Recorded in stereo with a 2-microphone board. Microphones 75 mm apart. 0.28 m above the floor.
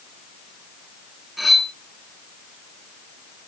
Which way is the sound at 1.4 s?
Centre (ahead or behind).